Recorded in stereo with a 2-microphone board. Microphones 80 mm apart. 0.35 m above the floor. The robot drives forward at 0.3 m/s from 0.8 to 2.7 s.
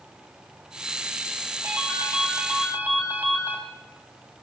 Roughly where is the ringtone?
Right.